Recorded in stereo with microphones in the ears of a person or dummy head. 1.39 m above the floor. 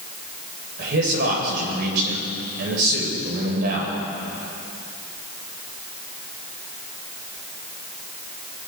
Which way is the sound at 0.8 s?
55° right (ahead or behind).